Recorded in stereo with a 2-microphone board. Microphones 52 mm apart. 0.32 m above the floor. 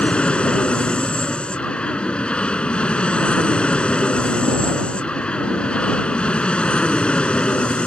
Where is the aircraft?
20° left (ahead or behind).